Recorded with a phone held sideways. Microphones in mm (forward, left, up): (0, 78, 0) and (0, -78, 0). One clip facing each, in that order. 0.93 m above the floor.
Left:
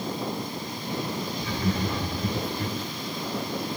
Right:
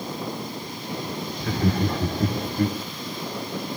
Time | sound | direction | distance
1.4 | laughter | 60° right (ahead or behind) | 2 m